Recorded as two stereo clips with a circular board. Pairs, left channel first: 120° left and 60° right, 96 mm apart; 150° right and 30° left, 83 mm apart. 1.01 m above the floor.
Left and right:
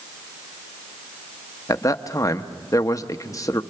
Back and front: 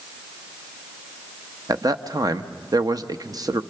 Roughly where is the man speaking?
Ahead left.